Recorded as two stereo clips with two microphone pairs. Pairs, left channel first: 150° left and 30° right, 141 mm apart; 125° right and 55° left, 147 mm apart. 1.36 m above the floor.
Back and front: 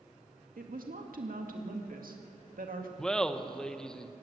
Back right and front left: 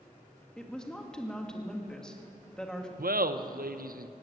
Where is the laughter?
65° left, 0.9 m.